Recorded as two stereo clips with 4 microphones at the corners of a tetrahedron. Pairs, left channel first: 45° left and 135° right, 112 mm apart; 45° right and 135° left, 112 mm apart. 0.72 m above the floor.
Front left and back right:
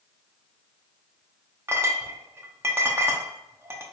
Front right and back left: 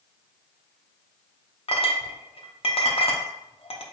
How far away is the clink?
About 0.6 m.